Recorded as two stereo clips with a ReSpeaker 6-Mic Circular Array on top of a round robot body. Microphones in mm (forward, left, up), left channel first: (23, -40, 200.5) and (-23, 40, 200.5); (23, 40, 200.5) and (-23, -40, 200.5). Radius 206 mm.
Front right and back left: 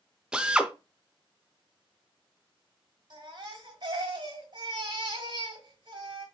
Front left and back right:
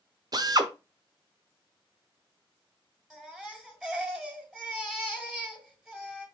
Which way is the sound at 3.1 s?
160° left.